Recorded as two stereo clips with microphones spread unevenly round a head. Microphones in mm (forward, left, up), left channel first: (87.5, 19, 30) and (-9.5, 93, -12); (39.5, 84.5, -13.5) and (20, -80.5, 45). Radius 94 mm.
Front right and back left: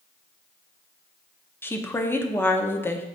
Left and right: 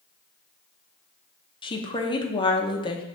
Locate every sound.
1.6 s a woman speaking: 50° left, 0.9 m